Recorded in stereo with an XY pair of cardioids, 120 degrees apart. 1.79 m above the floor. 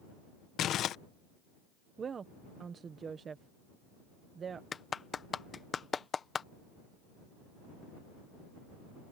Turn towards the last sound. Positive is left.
turn(degrees=35)